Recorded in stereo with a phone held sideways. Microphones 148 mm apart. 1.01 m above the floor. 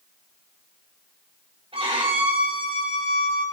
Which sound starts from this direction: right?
A violin, at 1.7 s.